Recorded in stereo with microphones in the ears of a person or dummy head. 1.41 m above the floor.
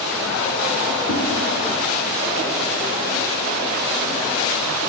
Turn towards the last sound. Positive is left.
turn(degrees=5)  # may be behind; listen again after turning